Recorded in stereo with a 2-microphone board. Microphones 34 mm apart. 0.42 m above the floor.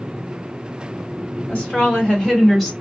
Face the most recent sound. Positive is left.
turn(degrees=10)  # may be behind; listen again after turning